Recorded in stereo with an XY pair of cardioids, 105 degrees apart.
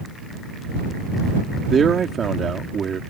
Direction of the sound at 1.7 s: 40° right.